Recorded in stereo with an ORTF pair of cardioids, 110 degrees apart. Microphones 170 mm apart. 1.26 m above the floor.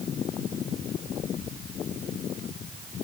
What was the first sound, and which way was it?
Only background noise.